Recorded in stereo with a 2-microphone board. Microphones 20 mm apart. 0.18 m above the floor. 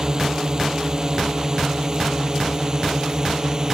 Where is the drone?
35° right (ahead or behind).